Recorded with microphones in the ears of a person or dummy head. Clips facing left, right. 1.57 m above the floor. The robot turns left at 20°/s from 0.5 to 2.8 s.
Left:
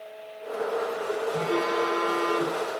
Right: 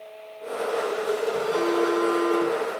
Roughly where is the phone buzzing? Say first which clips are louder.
Right 2 dB; left.